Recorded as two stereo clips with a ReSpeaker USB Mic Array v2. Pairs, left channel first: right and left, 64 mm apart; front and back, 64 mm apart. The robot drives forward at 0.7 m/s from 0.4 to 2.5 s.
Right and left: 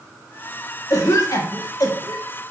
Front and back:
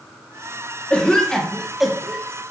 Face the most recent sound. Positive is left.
turn(degrees=-110)